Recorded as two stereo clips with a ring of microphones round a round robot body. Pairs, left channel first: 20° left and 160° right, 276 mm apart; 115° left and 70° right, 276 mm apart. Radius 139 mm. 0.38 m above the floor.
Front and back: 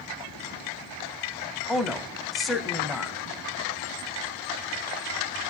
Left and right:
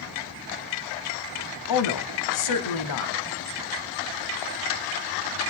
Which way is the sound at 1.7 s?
110° left.